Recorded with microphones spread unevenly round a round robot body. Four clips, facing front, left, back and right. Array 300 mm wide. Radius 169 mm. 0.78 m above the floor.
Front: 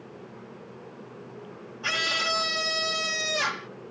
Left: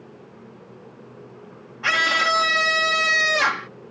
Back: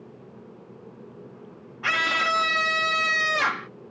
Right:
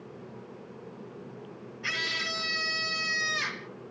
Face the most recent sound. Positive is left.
turn(degrees=125)